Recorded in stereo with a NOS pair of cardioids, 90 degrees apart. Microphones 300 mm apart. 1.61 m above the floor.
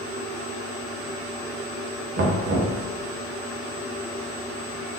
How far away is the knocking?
About 1.7 m.